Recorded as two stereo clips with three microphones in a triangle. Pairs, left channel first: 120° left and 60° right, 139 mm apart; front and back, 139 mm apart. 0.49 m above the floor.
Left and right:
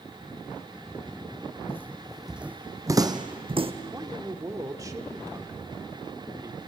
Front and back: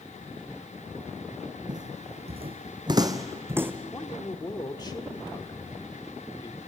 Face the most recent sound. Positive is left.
turn(degrees=-25)